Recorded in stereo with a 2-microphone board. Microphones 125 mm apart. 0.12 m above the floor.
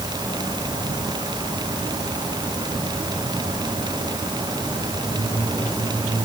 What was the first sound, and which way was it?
Only background noise.